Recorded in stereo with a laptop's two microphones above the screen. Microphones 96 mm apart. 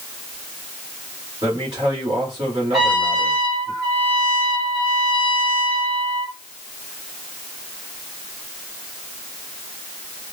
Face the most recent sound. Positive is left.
turn(degrees=0)  # may be behind; listen again after turning